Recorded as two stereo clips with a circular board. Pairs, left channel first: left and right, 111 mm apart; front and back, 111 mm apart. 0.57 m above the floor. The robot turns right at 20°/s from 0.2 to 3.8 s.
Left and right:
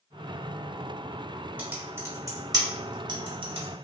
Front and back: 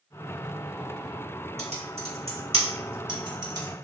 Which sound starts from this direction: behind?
Typing on a keyboard, at 1.6 s.